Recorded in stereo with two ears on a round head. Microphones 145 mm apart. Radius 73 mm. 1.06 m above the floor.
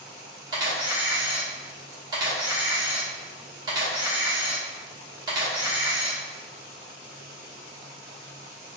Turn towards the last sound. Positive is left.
turn(degrees=-25)  # may be behind; listen again after turning